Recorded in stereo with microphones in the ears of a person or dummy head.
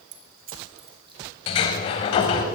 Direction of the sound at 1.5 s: 30° left (ahead or behind).